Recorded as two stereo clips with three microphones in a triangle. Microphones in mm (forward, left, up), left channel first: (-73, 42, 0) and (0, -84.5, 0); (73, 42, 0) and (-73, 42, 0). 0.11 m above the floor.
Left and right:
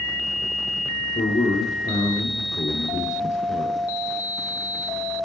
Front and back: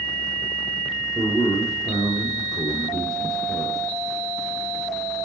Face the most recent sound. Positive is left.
turn(degrees=115)